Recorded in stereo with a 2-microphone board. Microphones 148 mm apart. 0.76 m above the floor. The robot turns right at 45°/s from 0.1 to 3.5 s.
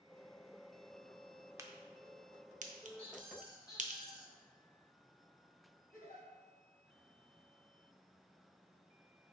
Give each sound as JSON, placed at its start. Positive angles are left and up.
{"t": 1.6, "sound": "a crack", "side_deg": -20, "distance_m": 0.5}
{"t": 3.0, "sound": "a squeak", "side_deg": 45, "distance_m": 1.3}
{"t": 5.9, "sound": "a giggle", "side_deg": 70, "distance_m": 2.0}